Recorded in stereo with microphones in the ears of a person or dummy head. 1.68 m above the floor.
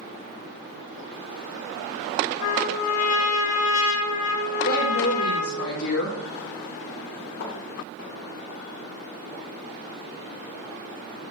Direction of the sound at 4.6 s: 70° left (ahead or behind).